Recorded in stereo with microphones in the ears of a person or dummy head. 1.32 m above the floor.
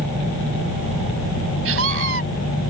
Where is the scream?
90° right.